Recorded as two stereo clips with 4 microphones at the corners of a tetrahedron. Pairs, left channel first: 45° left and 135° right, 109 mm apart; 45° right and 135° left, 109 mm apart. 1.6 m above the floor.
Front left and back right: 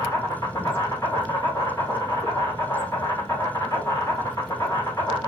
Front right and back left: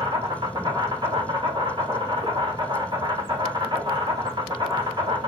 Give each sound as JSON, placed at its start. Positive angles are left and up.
{"t": 0.0, "sound": "an insect", "azimuth_deg": 100, "distance_m": 2.0}